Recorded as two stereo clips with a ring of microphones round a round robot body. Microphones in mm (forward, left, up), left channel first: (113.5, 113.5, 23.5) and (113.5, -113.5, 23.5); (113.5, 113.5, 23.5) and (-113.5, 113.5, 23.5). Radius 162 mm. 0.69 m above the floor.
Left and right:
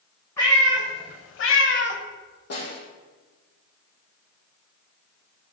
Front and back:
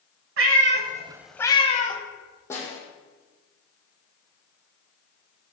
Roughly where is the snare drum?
Left.